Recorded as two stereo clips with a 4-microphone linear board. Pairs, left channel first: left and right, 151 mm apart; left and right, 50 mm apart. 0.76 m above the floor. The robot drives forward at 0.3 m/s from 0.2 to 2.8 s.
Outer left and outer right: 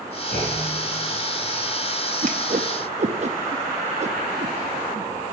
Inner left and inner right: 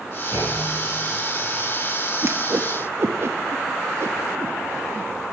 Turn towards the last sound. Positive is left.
turn(degrees=-45)  # may be behind; listen again after turning